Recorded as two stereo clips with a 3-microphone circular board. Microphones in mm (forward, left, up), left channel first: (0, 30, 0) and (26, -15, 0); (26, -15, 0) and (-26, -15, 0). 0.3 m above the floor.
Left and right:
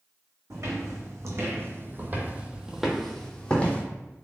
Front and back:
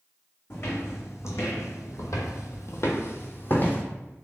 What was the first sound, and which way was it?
Footsteps, 40° right.